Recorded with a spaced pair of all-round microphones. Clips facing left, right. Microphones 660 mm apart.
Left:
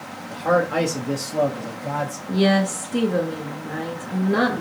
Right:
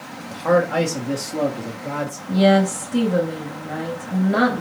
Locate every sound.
0.3 s a man speaking: 40° right (ahead or behind), 0.7 m; by 2.2 s 30° left (ahead or behind), 1.0 m
2.3 s a woman speaking: 15° right (ahead or behind), 0.9 m